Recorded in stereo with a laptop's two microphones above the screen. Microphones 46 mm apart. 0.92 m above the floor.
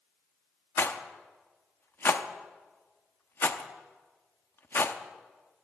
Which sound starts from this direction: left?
A rattle, at 0.8 s.